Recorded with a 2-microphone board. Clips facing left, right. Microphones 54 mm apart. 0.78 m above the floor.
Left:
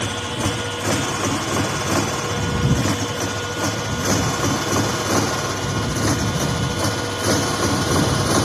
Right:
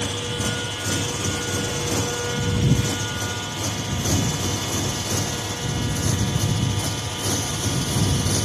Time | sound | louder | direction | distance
0.0 | a motorcycle | left 3 dB | 50° left (ahead or behind) | ?